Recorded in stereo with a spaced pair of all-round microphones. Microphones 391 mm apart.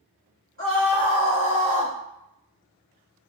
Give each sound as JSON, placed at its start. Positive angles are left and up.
{"t": 0.6, "sound": "a scream", "side_deg": -35, "distance_m": 1.9}